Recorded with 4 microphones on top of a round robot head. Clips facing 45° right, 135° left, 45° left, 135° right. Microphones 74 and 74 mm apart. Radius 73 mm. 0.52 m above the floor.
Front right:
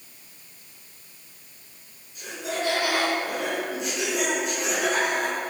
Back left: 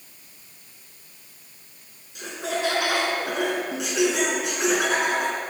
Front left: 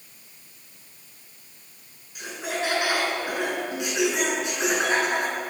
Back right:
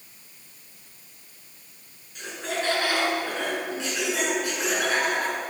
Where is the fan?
I don't hear a fan.